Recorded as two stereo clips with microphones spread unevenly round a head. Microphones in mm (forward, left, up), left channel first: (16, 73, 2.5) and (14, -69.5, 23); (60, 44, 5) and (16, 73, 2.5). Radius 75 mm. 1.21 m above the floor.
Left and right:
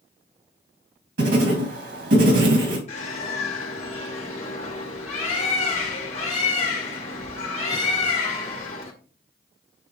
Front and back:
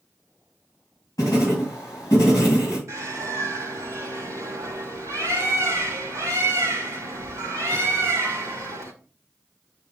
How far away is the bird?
About 1.9 m.